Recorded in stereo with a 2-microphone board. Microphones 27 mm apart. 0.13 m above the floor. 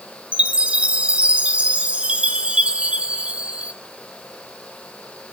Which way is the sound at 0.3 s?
45° right (ahead or behind).